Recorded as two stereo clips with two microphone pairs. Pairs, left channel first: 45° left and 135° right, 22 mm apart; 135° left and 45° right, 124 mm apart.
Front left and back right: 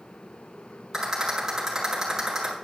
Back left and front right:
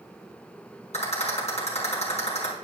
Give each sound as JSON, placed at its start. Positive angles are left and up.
{"t": 0.9, "sound": "a rattle", "azimuth_deg": 160, "distance_m": 6.0}